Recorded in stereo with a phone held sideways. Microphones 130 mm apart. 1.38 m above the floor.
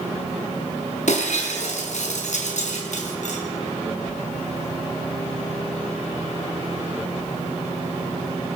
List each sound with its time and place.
1.1 s breaking glass: 70° left (ahead or behind), 4.5 m